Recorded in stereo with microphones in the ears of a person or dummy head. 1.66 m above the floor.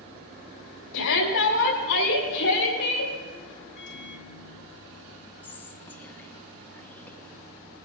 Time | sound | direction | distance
0.9 | a shout | 70° left (ahead or behind) | 8 m
3.8 | a microwave | 60° left (ahead or behind) | 1.2 m
5.4 | whispering | 5° left (ahead or behind) | 2 m